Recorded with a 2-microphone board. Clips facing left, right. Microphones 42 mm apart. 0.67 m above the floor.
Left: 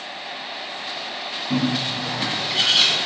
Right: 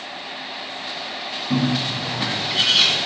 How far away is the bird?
About 1.8 m.